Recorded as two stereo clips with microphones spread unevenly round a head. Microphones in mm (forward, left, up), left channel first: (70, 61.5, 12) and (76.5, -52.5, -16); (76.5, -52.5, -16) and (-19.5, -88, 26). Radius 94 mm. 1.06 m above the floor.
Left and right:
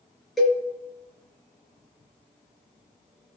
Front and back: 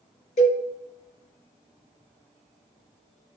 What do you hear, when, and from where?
0.4 s a cowbell: 5° left, 4.5 m